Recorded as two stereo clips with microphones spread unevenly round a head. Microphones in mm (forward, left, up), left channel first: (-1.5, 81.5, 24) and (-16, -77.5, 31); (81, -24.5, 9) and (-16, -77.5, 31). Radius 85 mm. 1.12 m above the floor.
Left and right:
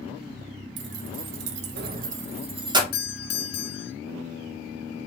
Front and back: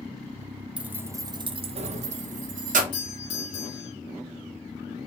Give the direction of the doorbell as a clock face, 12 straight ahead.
10 o'clock.